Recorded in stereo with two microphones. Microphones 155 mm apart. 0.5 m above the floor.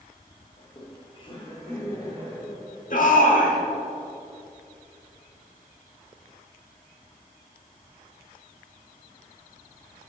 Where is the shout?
60° left (ahead or behind), 1.2 m.